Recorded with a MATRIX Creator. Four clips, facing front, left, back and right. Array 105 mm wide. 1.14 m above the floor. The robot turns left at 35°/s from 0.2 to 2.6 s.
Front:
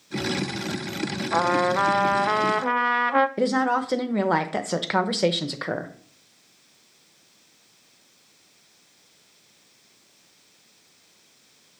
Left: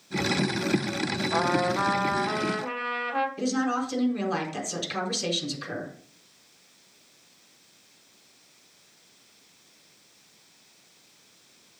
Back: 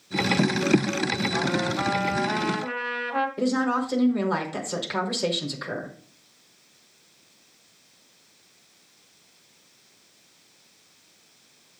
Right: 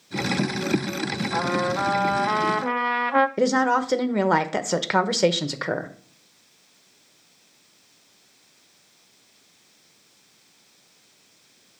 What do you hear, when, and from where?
1.3 s a trumpet: 10° left, 0.5 m; by 3.3 s 35° right, 0.5 m
3.4 s a woman speaking: 60° right, 0.8 m